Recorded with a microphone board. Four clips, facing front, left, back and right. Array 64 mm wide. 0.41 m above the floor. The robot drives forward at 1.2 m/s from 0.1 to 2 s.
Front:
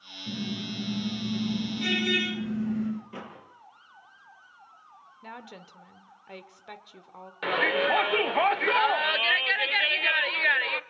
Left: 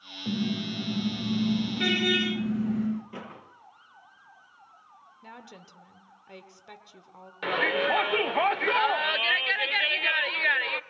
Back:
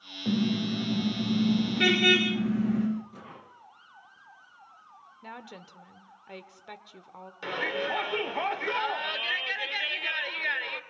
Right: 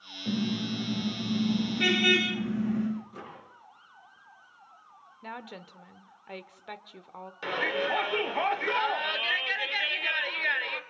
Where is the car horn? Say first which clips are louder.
Even, back 7 dB; 175° left, 8 m.